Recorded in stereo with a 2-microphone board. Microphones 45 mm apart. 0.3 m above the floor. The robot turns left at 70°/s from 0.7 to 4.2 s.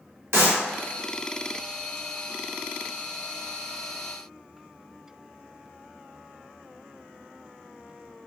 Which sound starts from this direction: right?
A clap, at 0.3 s.